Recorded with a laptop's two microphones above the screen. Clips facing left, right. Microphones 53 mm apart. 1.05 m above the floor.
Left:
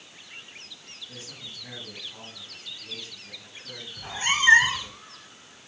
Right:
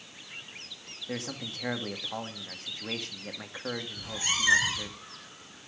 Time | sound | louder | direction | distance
1.1 | a man speaking | right 10 dB | 70° right (ahead or behind) | 2 m
4.0 | a cat meowing | left 9 dB | 40° left (ahead or behind) | 1.0 m